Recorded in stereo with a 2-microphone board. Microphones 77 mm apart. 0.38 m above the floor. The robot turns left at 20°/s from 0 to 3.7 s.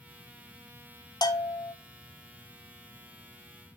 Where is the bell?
60° left (ahead or behind), 0.5 m; by 1.7 s 50° left (ahead or behind), 0.5 m.